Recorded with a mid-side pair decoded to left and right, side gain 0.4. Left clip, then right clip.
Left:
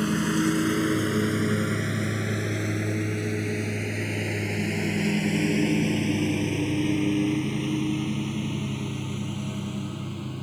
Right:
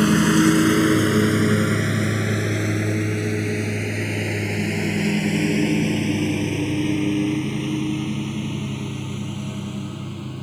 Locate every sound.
0.0 s a lawn mower: 60° right; by 10.4 s 15° right